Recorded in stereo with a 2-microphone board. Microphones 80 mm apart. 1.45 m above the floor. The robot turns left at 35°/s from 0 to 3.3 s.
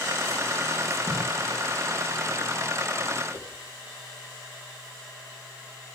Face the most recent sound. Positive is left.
turn(degrees=30)  # may be behind; listen again after turning